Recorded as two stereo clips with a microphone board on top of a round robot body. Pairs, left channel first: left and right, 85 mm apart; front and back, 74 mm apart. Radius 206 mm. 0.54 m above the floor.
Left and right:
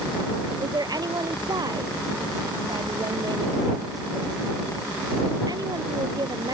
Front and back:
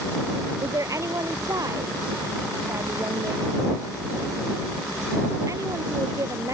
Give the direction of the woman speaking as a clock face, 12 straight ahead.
5 o'clock.